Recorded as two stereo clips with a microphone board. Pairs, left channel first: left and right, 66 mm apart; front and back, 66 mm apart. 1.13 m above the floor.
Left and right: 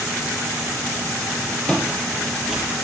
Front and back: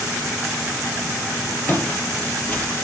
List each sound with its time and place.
1.7 s footsteps: 30° left, 1.4 m; by 2.7 s 20° right, 1.2 m